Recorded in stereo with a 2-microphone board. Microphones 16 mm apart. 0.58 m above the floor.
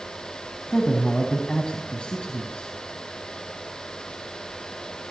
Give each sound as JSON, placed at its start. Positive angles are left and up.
{"t": 0.7, "sound": "a man speaking", "side_deg": 80, "distance_m": 3.5}